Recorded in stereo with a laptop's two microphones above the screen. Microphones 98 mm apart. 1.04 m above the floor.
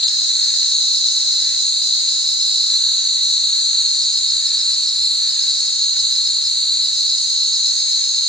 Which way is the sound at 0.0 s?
5° left (ahead or behind).